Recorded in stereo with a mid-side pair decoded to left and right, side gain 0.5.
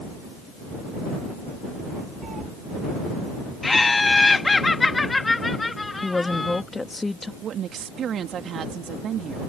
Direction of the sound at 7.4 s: 55° right.